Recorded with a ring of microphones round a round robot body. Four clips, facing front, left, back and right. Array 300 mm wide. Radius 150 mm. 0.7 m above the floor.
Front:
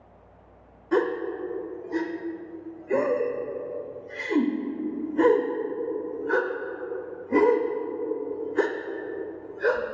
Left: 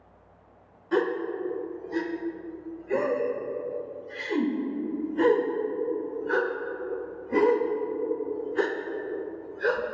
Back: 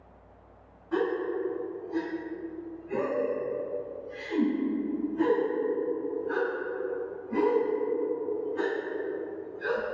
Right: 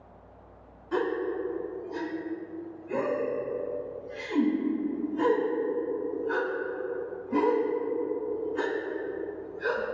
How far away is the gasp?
About 0.8 m.